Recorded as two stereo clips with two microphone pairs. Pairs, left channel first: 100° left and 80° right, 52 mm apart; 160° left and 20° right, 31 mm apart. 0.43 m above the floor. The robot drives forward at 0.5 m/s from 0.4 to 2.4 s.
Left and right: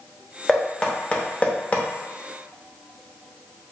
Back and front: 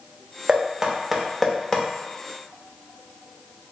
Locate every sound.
0.5 s knocking: 30° left, 0.8 m; by 1.8 s 120° left, 0.6 m